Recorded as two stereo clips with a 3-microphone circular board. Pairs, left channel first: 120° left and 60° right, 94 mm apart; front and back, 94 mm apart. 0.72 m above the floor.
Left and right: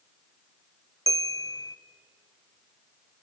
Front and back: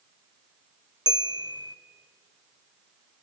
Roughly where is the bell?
Behind.